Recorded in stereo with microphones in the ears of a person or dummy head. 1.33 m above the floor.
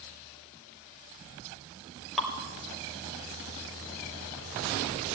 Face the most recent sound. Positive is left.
turn(degrees=-5)  # may be behind; listen again after turning